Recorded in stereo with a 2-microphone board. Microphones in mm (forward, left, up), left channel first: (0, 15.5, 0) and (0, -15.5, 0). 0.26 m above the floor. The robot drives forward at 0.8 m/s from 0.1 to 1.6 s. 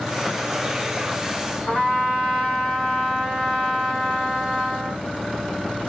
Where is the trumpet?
30° left (ahead or behind), 3.5 m.